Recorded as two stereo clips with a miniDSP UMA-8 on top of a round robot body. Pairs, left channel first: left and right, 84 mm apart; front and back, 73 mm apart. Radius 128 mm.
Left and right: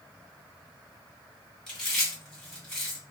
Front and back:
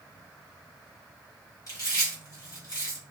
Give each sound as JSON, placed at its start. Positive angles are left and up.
{"t": 1.7, "sound": "chewing", "azimuth_deg": 5, "distance_m": 1.7}